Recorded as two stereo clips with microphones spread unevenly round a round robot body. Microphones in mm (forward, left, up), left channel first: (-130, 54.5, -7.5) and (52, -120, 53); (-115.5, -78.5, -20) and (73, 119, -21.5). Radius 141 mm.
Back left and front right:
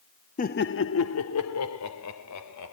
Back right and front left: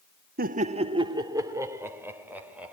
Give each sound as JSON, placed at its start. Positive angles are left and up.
{"t": 0.4, "sound": "laughter", "azimuth_deg": 95, "distance_m": 1.0}